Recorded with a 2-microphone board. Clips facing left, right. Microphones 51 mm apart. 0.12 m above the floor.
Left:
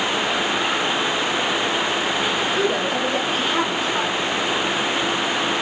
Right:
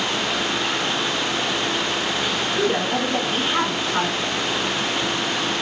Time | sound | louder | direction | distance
2.5 | a woman speaking | even | 20° right (ahead or behind) | 1.2 m